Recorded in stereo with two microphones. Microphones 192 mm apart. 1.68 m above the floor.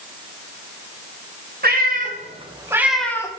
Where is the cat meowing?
55° right (ahead or behind), 1.3 m; by 3.3 s 15° left (ahead or behind), 0.9 m.